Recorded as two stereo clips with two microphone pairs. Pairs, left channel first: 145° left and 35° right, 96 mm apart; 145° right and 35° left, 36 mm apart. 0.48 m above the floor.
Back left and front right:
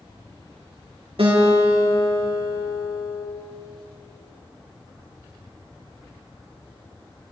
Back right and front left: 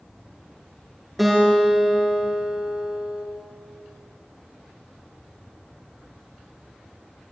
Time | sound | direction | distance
1.2 | a guitar | 55° right | 5 m